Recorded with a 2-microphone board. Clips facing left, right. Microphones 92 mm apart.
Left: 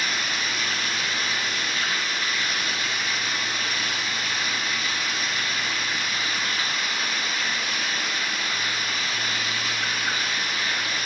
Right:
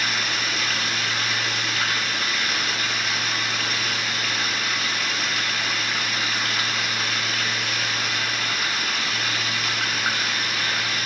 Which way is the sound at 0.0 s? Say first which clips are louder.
Right 2 dB; 80° right.